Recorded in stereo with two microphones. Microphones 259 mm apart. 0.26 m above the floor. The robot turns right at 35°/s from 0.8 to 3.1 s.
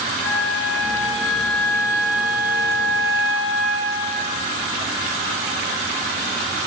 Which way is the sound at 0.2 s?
140° left.